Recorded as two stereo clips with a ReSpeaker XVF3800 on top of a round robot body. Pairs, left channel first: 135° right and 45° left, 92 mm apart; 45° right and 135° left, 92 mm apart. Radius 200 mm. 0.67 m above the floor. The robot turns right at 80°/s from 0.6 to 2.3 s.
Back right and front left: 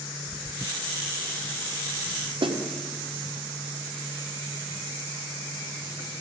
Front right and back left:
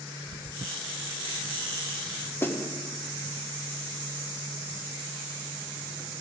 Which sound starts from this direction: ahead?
A snare drum, at 2.4 s.